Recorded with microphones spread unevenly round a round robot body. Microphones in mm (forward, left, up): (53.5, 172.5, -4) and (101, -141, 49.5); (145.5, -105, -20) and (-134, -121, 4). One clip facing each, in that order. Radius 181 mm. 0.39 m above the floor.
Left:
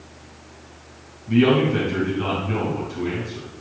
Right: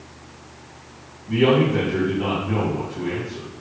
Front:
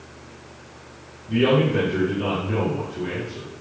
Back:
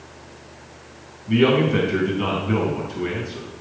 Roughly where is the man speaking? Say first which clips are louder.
Left 1 dB, back 2 dB; behind.